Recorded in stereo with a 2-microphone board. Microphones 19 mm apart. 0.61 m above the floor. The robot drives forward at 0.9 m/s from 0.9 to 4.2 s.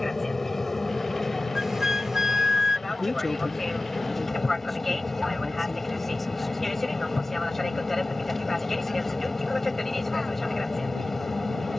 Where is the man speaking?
10° left (ahead or behind); by 6.8 s 5° left (ahead or behind).